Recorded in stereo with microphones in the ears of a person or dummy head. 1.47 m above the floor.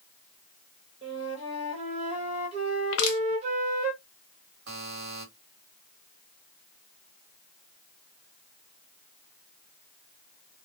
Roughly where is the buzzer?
Right.